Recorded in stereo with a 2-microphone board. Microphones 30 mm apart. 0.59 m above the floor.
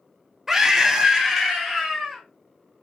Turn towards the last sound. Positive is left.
turn(degrees=-10)  # may be behind; listen again after turning